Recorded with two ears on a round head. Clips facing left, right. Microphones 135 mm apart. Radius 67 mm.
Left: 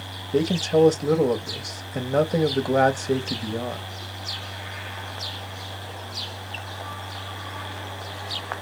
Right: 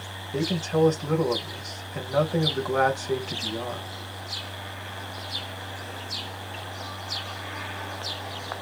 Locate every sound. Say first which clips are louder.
0.3 s a man speaking: left 5 dB; 35° left (ahead or behind), 0.7 m